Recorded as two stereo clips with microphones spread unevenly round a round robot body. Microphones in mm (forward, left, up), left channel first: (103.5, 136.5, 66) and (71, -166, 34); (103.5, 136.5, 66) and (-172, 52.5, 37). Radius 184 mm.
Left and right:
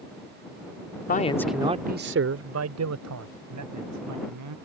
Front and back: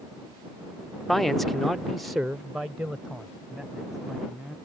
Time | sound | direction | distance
1.1 | a man speaking | 115° left | ?